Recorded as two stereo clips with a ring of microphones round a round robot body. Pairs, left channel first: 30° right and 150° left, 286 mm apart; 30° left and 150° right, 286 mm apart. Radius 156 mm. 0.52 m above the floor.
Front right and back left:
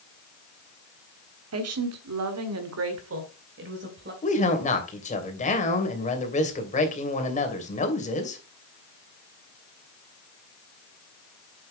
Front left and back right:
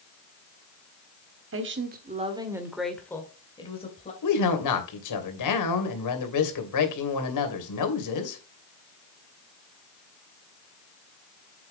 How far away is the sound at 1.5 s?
About 1.7 m.